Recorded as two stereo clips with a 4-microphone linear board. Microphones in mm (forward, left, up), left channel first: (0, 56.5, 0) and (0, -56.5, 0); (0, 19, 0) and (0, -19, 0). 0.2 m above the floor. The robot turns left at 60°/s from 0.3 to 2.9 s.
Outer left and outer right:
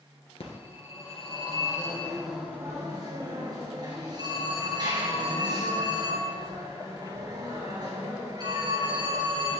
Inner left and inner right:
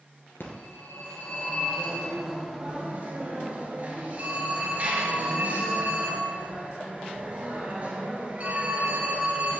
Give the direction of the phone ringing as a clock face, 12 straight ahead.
8 o'clock.